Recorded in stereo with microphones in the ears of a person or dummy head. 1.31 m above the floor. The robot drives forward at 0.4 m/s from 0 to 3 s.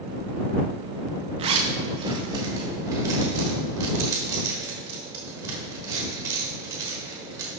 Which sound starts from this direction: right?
A zipper, at 1.4 s.